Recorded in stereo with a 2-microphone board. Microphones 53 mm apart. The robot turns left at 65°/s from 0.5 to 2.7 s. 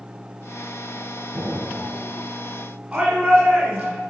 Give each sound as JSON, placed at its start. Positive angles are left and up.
{"t": 1.3, "sound": "an explosion", "azimuth_deg": -40, "distance_m": 4.0}
{"t": 2.9, "sound": "a shout", "side_deg": -25, "distance_m": 2.0}